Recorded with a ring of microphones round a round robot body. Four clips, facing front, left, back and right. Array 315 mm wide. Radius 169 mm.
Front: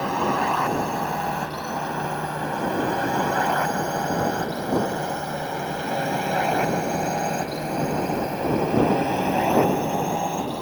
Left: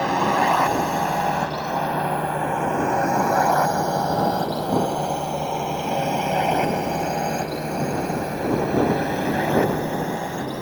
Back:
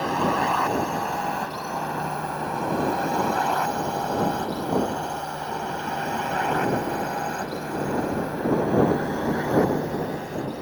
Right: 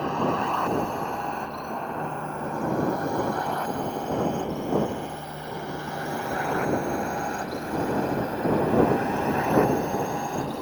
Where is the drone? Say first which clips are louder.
Left 6 dB, even; 95° left; by 10.6 s 30° left.